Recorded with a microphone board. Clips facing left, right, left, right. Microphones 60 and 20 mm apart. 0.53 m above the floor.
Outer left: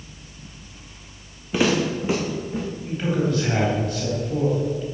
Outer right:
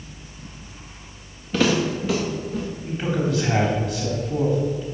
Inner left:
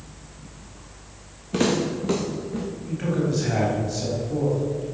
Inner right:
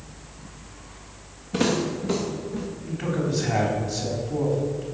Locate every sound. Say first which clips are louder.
1.5 s footsteps: even, inner left 1 dB; 15° left (ahead or behind), 2.5 m; by 2.6 s 35° left (ahead or behind), 3 m
2.9 s a man speaking: outer left 1 dB, inner left 2 dB; 5° right (ahead or behind), 3.5 m